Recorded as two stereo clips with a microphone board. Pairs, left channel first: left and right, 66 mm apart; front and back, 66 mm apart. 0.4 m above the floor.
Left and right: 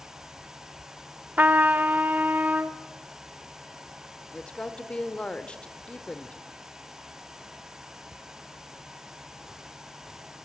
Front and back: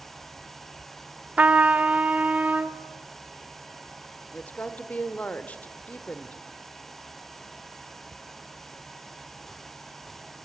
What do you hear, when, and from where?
1.4 s a trumpet: 130° right, 0.9 m
4.3 s a woman speaking: 40° left, 1.3 m